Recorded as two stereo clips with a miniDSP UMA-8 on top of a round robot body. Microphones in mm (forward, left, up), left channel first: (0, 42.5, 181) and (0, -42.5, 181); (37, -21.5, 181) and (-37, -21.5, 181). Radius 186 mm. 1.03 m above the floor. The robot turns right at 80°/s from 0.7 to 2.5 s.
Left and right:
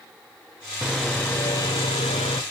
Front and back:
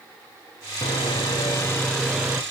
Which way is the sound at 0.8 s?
10° right.